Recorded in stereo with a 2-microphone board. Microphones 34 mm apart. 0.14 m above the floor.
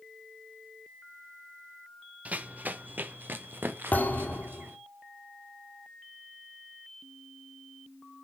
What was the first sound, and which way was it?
Running footsteps, 45° right (ahead or behind).